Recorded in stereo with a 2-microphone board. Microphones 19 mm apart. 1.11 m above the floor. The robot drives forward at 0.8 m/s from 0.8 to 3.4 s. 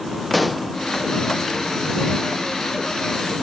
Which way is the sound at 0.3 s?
Centre (ahead or behind).